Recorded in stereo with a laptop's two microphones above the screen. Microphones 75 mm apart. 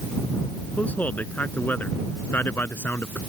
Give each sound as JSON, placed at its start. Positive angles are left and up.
{"t": 0.8, "sound": "a man speaking", "side_deg": 20}